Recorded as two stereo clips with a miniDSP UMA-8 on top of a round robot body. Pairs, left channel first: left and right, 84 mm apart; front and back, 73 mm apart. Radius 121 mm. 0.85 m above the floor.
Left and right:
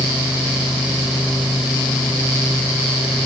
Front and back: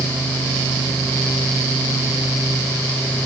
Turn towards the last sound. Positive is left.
No sound to turn to.